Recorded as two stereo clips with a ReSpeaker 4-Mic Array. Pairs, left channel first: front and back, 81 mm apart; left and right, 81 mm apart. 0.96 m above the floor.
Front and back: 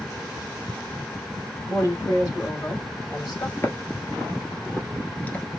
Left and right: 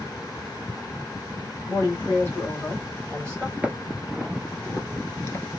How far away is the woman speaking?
About 1.9 m.